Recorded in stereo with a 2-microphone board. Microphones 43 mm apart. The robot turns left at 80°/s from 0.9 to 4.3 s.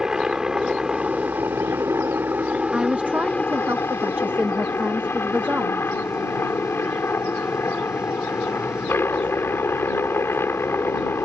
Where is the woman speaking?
20° right; by 5.9 s 145° right.